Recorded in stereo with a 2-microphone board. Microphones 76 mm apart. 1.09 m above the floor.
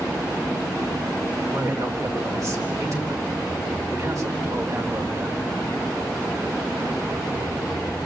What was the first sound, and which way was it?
A man speaking, 45° right (ahead or behind).